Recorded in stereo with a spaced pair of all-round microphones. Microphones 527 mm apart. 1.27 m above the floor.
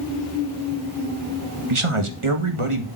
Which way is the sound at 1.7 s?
65° right (ahead or behind).